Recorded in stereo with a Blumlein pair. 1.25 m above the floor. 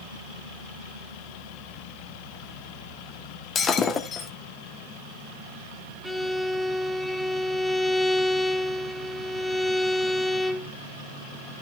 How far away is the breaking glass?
About 1.5 m.